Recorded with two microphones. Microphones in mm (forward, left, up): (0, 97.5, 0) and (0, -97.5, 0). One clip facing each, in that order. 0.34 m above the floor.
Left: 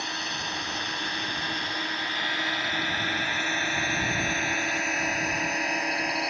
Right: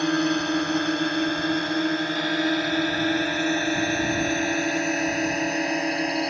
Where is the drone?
65° right (ahead or behind); by 6.3 s 30° right (ahead or behind).